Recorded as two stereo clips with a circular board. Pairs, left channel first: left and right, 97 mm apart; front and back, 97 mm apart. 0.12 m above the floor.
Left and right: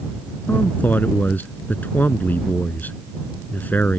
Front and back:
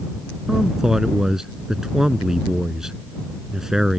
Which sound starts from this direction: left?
A man speaking, at 0.5 s.